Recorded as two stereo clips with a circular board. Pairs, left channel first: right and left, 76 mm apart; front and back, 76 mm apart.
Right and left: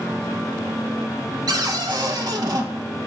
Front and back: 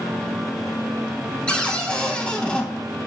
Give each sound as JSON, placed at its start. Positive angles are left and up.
{"t": 1.5, "sound": "a cupboard door", "azimuth_deg": 75, "distance_m": 0.6}